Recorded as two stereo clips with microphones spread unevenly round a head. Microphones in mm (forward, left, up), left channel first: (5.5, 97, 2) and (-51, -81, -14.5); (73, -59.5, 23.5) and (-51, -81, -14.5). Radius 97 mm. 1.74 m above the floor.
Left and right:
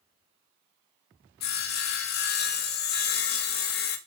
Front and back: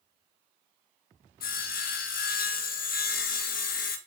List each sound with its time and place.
1.4 s sawing: 30° left, 1.3 m